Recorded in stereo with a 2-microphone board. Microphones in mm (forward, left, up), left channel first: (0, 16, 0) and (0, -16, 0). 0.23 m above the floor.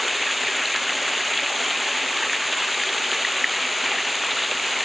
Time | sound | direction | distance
0.0 | running water | centre (ahead or behind) | ?